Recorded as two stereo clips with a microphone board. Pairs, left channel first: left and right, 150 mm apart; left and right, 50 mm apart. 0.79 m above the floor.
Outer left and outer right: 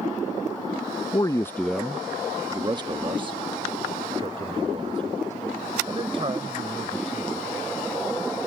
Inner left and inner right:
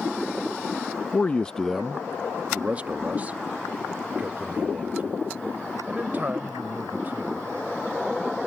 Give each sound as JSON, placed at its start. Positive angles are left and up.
{"t": 1.1, "sound": "a man speaking", "side_deg": 30}